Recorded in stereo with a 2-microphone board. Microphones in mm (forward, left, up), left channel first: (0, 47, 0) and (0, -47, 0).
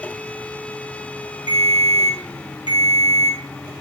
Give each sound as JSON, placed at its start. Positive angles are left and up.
{"t": 1.5, "sound": "a ringtone", "side_deg": 55, "distance_m": 1.1}